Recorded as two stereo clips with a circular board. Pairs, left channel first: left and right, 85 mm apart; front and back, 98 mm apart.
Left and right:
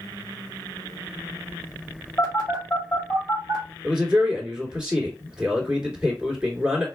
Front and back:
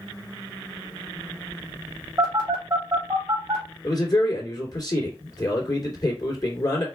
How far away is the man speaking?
About 2.5 m.